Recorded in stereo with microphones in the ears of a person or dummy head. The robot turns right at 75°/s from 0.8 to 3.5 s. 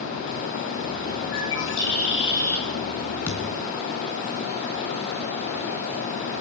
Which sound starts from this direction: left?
A bird, at 1.3 s.